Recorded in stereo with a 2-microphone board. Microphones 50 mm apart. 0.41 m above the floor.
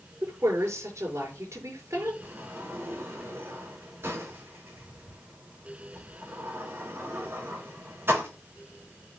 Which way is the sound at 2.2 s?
50° right (ahead or behind).